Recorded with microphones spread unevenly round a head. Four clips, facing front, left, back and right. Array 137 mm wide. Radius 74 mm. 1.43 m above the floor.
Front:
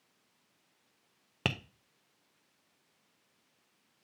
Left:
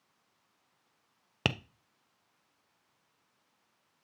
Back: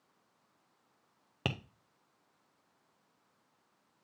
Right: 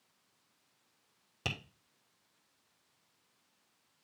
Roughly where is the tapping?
Ahead left.